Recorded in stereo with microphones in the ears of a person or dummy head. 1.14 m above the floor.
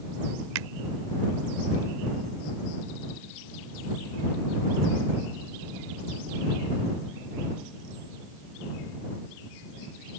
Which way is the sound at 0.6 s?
70° right (ahead or behind).